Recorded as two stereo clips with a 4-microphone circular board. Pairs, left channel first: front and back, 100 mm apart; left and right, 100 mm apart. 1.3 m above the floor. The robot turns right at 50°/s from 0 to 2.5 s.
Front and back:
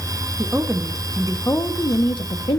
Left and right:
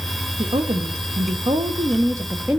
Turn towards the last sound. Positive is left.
turn(degrees=-15)